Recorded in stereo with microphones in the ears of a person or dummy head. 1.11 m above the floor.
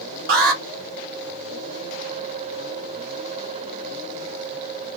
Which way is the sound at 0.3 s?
50° right (ahead or behind).